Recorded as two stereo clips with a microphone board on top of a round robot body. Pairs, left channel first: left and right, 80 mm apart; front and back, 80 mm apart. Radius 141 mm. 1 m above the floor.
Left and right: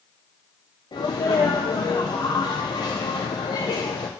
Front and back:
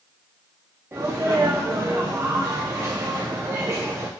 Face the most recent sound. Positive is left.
turn(degrees=125)